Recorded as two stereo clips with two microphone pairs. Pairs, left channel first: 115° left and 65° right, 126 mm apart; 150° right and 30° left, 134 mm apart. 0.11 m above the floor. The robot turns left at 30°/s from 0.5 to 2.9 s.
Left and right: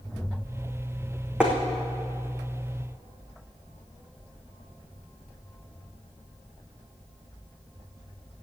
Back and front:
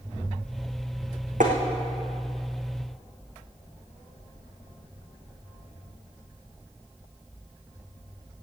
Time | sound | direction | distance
1.4 | tapping | 20° left | 2.5 m